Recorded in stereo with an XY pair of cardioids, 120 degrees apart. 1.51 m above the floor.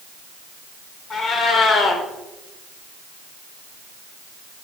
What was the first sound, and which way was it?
A cat meowing, 45° left.